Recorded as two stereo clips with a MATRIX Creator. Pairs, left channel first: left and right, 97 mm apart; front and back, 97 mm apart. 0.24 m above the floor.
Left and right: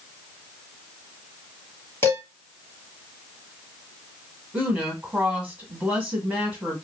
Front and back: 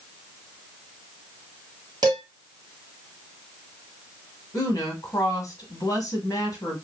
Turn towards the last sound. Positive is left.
turn(degrees=-15)